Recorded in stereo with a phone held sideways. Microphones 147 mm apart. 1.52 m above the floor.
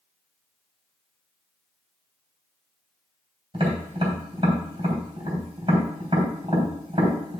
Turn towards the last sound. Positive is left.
turn(degrees=-40)  # may be behind; listen again after turning